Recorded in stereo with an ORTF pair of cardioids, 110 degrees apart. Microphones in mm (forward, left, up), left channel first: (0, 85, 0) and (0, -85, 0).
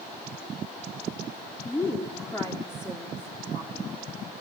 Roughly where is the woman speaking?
Ahead.